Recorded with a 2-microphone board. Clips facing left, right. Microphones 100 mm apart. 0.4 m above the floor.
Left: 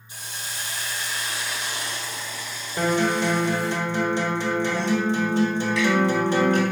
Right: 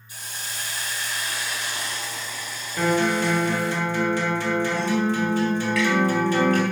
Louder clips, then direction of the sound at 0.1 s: Even; 25° left (ahead or behind).